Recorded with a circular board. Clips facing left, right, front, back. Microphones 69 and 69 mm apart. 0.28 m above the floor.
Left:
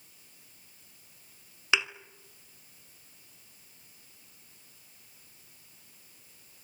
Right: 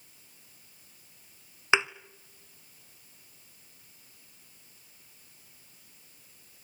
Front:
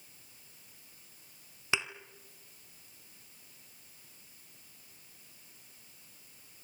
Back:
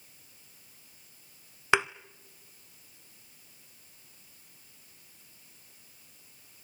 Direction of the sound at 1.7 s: 150° right.